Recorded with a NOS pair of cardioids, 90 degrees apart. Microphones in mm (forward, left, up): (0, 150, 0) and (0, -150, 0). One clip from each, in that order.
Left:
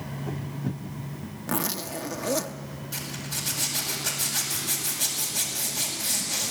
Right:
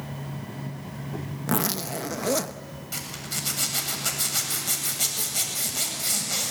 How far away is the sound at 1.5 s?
About 0.8 m.